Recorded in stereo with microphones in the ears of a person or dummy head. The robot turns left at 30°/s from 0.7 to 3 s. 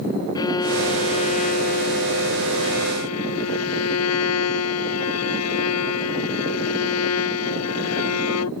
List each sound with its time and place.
0.3 s a violin: 160° left; by 8.5 s 90° left